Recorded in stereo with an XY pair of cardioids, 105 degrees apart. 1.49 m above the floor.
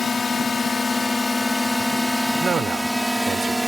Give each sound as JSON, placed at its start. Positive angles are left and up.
{"t": 0.0, "sound": "a drone", "azimuth_deg": 35}
{"t": 2.4, "sound": "a man speaking", "azimuth_deg": -45}